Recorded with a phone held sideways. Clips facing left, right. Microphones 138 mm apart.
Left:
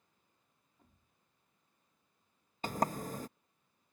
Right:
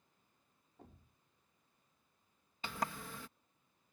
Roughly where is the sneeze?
I don't hear a sneeze.